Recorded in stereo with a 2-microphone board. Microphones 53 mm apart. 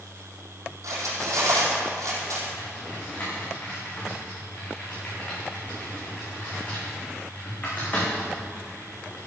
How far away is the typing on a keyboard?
About 5 m.